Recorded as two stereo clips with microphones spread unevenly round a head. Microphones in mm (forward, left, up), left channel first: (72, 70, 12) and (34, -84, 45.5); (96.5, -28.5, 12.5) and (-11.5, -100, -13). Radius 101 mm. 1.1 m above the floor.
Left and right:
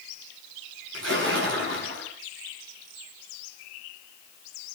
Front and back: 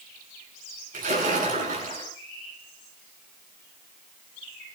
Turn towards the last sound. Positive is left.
turn(degrees=-135)